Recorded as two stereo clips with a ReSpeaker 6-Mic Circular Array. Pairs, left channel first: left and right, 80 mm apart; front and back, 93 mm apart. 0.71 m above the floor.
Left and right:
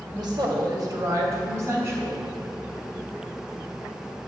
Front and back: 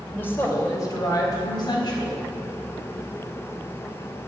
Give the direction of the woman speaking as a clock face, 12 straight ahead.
2 o'clock.